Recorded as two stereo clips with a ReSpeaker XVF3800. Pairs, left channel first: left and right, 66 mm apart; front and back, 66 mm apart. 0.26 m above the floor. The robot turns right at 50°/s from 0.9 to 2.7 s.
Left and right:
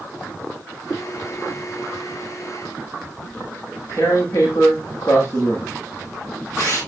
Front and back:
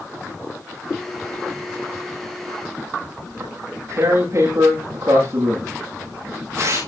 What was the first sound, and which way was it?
Tearing paper, 140° left.